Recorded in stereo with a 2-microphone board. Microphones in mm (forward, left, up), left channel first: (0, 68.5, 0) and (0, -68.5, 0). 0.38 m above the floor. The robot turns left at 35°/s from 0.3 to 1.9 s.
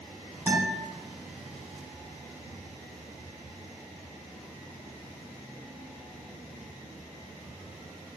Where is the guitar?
20° right (ahead or behind), 1.4 m; by 0.8 s 15° right (ahead or behind), 1.4 m.